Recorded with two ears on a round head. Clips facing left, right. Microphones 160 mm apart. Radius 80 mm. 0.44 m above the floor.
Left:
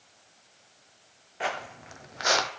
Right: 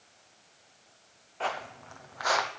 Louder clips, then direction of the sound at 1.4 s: Left 1 dB; 15° left (ahead or behind).